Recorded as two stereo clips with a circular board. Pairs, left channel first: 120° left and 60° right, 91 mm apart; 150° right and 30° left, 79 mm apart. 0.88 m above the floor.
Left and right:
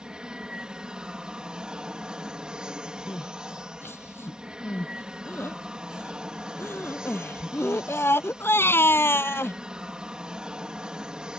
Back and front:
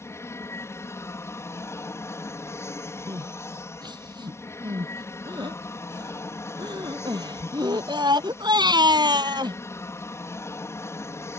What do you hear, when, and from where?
0.0 s an aircraft: 135° right
3.1 s crying: 55° left